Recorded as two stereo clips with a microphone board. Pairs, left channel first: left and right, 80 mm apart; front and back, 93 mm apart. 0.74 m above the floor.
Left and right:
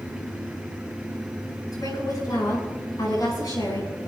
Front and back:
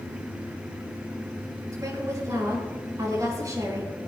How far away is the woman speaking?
About 6.5 m.